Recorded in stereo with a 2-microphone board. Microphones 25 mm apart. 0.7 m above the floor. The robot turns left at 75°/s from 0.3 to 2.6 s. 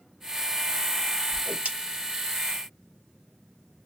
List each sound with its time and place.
1.3 s a whoosh: 50° right (ahead or behind), 2.5 m; by 1.7 s 75° right (ahead or behind), 2.5 m